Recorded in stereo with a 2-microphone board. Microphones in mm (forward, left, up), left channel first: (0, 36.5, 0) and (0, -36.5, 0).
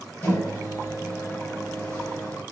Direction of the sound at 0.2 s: 30° left (ahead or behind).